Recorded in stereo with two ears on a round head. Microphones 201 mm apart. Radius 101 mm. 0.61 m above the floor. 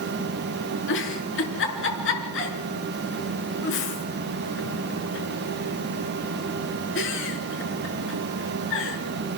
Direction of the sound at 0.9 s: 60° left (ahead or behind).